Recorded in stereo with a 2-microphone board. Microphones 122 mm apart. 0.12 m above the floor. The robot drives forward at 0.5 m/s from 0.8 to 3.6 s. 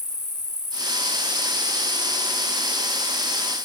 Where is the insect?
5° right (ahead or behind), 2 m.